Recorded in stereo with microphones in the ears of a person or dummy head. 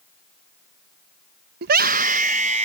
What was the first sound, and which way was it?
A scream, 55° right (ahead or behind).